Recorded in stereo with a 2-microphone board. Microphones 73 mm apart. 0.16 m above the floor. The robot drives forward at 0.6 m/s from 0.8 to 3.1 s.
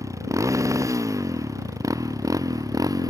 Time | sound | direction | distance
0.0 | a motorcycle | 45° right (ahead or behind) | ?